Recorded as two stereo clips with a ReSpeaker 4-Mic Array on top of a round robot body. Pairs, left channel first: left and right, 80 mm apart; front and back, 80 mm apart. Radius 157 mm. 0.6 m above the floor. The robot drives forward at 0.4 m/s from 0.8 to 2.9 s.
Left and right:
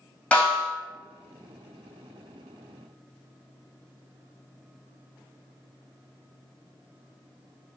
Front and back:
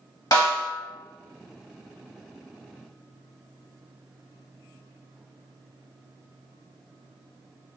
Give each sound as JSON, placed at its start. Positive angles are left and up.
{"t": 0.3, "sound": "a snare drum", "azimuth_deg": 25, "distance_m": 1.6}